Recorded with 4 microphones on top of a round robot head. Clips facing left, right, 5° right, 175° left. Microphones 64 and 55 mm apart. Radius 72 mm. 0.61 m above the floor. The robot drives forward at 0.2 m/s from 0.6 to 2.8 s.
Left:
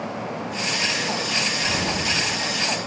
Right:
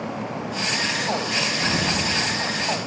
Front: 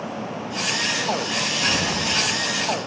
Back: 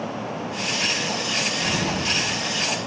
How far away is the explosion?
About 3 m.